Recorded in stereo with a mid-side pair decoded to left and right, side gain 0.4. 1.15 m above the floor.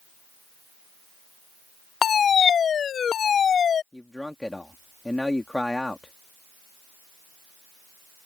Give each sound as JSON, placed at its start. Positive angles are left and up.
{"t": 2.0, "sound": "a fire alarm", "azimuth_deg": 55}
{"t": 3.9, "sound": "a man speaking", "azimuth_deg": 10}